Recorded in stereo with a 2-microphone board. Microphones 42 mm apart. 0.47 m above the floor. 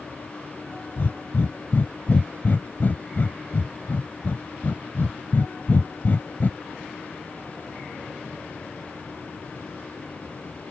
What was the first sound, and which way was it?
Breathing, 50° left (ahead or behind).